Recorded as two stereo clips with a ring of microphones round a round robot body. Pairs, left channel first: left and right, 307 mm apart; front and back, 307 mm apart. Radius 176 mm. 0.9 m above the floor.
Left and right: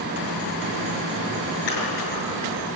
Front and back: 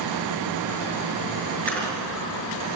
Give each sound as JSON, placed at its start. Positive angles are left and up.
{"t": 1.7, "sound": "a splash", "azimuth_deg": 85, "distance_m": 7.5}